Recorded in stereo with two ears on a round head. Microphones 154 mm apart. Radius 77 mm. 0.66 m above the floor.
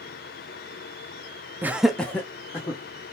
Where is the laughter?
10° right (ahead or behind), 0.5 m; by 2.8 s 15° left (ahead or behind), 1.2 m.